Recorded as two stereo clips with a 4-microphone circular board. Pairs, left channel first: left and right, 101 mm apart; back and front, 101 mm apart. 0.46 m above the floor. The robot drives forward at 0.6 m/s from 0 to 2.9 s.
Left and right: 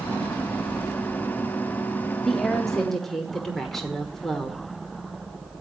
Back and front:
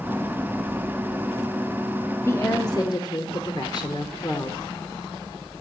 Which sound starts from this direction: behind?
A woman speaking, at 2.2 s.